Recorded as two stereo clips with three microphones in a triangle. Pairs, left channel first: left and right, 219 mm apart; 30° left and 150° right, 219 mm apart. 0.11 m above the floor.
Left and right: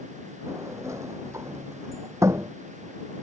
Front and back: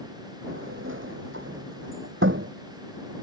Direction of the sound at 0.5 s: 165° right.